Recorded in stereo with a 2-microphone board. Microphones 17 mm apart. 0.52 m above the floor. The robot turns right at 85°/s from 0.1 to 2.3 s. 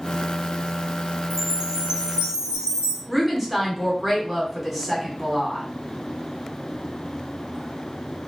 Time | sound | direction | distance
1.3 | a chime | 150° right | 0.6 m
3.1 | a woman speaking | 10° right (ahead or behind) | 1.3 m